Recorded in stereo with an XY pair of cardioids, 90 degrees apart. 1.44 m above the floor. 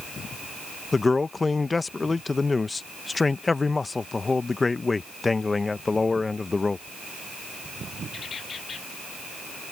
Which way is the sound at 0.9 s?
25° left.